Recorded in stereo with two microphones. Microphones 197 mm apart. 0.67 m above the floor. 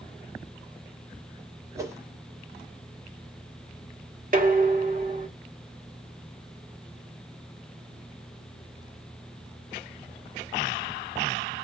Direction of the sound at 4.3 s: 45° right (ahead or behind).